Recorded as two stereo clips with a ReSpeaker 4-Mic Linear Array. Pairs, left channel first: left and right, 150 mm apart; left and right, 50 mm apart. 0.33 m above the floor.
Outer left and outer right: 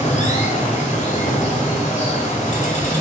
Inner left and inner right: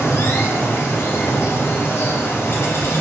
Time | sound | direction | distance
0.0 | running water | 50° left (ahead or behind) | 1.0 m